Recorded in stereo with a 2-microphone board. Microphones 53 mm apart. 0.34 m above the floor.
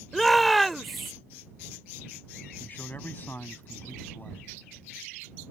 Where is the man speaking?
35° left (ahead or behind).